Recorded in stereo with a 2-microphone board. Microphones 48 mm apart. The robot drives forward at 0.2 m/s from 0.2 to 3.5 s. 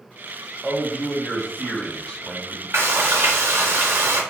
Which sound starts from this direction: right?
Frying, at 2.7 s.